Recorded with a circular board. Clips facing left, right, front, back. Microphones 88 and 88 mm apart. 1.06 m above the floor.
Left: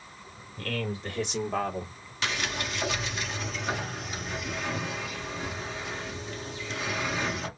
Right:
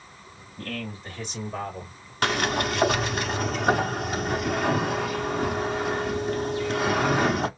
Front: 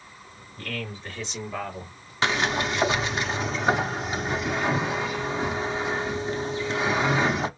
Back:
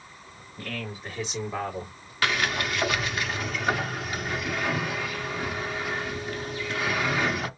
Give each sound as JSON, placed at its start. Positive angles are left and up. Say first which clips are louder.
{"t": 0.6, "sound": "a man speaking", "louder": "left 2 dB, front 1 dB", "azimuth_deg": 95, "distance_m": 3.5}
{"t": 2.2, "sound": "a sliding door", "louder": "right 8 dB, front 2 dB", "azimuth_deg": -60, "distance_m": 0.8}